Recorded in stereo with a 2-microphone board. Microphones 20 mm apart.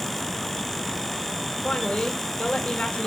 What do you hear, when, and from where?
1.6 s a woman speaking: 60° left (ahead or behind), 1.9 m